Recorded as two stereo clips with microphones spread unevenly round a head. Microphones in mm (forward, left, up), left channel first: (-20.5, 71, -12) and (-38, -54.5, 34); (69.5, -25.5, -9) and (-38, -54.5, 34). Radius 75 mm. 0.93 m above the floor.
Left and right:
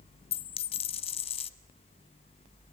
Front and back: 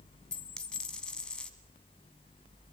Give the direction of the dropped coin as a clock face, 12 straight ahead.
8 o'clock.